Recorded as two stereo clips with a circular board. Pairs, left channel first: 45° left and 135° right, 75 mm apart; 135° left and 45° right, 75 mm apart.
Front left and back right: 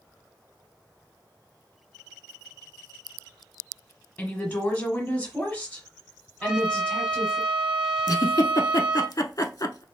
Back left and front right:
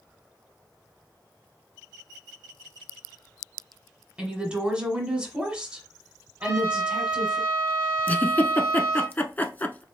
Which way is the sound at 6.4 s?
60° right.